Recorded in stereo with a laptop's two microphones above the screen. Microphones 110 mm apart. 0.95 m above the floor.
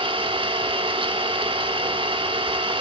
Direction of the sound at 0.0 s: 50° right (ahead or behind).